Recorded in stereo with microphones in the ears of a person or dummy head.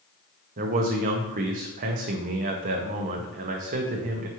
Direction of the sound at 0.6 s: 40° right (ahead or behind).